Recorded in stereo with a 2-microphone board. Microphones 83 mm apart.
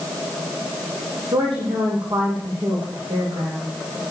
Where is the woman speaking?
80° right, 9 m.